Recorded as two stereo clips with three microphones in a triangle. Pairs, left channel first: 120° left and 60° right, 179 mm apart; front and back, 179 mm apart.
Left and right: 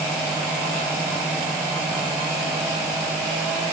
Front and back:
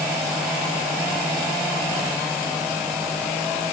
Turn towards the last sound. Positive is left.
No sound to turn to.